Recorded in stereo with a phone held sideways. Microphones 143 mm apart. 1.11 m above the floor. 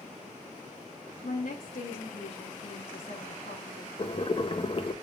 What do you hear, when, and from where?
1.2 s a woman speaking: 60° left (ahead or behind), 1.3 m
4.0 s boiling: 35° left (ahead or behind), 0.6 m